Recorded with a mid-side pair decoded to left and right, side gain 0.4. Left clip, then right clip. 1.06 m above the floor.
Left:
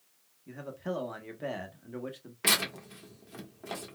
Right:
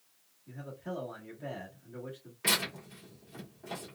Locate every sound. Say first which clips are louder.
0.5 s a man speaking: left 5 dB; 60° left, 1.1 m
2.4 s tearing paper: left 3 dB; 55° left, 1.4 m